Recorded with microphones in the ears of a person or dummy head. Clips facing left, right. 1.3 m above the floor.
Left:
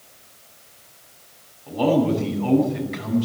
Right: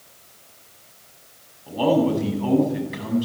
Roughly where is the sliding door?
No sliding door in this recording.